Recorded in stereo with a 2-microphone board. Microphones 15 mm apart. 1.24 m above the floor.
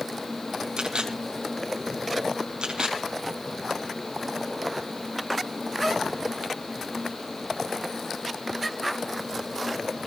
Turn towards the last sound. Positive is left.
turn(degrees=-80)